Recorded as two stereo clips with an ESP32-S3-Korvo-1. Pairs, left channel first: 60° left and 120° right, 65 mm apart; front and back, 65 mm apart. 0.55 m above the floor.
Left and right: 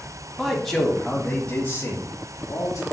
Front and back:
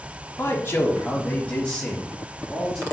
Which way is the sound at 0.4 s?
40° right.